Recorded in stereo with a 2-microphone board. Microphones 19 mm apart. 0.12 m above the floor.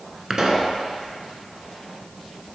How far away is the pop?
About 1.0 m.